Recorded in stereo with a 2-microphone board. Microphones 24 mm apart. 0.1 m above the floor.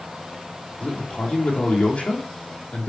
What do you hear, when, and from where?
0.8 s a man speaking: 60° left (ahead or behind), 4 m